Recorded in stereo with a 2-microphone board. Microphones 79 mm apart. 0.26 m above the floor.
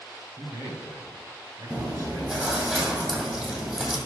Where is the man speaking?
50° right (ahead or behind), 2 m.